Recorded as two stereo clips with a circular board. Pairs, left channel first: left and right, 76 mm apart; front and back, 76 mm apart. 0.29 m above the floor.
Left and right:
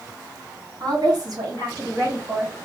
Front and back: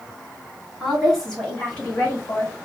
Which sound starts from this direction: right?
A woman speaking, at 0.8 s.